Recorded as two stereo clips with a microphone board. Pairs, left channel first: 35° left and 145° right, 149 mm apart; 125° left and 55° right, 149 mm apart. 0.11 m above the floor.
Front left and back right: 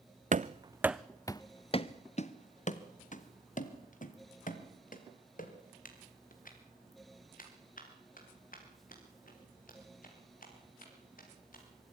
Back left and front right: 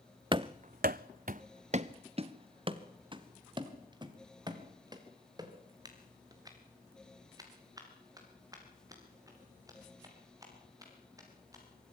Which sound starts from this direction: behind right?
Running footsteps, at 0.3 s.